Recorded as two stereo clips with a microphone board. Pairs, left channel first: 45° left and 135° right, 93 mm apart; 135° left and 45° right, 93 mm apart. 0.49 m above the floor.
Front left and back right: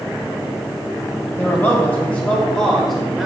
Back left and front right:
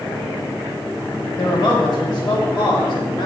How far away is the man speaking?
About 3 m.